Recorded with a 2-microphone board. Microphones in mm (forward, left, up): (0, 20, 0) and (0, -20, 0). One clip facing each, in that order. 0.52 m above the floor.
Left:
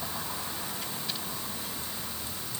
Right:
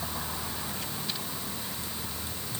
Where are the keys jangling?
No keys jangling in this recording.